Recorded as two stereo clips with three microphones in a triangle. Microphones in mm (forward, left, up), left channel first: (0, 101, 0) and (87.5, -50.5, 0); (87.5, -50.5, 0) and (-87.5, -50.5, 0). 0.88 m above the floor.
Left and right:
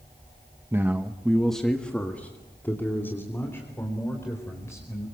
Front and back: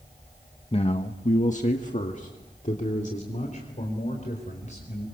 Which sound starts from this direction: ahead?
A man speaking, at 0.7 s.